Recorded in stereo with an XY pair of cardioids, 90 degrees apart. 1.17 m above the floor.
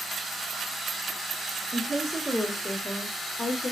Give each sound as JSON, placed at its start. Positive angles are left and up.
{"t": 1.7, "sound": "a woman speaking", "azimuth_deg": -30, "distance_m": 0.9}